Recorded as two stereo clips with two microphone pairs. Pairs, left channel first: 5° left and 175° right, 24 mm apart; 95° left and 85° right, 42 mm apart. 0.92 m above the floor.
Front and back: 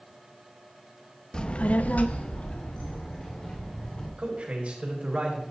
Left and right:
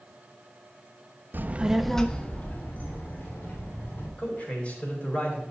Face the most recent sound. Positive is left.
turn(degrees=155)